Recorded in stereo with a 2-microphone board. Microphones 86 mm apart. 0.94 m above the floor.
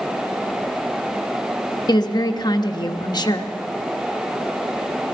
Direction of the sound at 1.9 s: 55° left (ahead or behind).